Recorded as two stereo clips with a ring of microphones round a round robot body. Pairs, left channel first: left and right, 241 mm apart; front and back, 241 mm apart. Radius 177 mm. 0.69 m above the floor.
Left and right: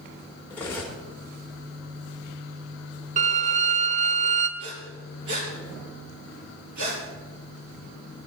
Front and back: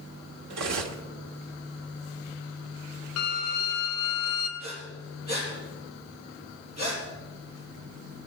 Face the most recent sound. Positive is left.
turn(degrees=-110)